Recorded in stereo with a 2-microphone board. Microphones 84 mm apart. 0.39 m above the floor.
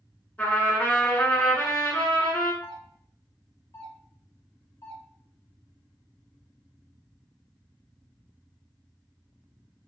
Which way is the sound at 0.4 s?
20° left (ahead or behind).